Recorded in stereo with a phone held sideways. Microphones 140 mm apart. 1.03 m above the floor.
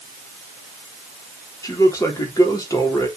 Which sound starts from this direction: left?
A man speaking, at 1.6 s.